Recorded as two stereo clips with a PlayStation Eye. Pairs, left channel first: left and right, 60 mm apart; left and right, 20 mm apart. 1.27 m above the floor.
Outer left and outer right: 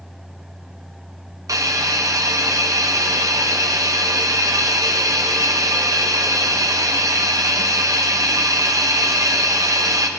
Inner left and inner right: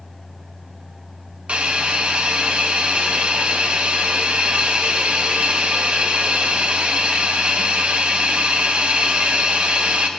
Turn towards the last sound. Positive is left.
turn(degrees=-65)  # may be behind; listen again after turning